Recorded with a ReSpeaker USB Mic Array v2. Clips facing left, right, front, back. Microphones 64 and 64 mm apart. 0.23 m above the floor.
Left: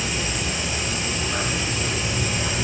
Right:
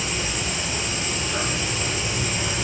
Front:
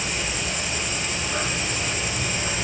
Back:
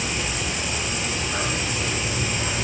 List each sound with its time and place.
0.0 s an insect: 80° left, 0.8 m